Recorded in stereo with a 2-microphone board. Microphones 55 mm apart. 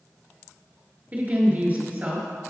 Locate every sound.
1.1 s a woman speaking: 30° right (ahead or behind), 1.3 m